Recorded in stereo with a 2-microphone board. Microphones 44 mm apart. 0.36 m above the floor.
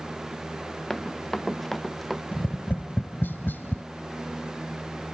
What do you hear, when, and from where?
0.9 s running footsteps: 10° left (ahead or behind); by 2.2 s centre (ahead or behind)
2.3 s tapping: 55° left (ahead or behind)